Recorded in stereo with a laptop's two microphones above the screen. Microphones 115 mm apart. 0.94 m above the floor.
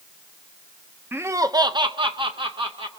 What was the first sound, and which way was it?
Laughter, 20° right (ahead or behind).